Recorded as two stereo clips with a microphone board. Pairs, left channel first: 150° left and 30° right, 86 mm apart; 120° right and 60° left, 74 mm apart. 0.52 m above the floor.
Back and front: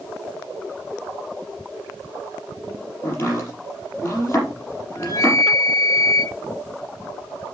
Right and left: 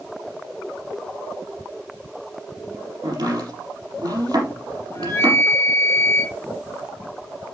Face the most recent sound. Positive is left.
turn(degrees=-165)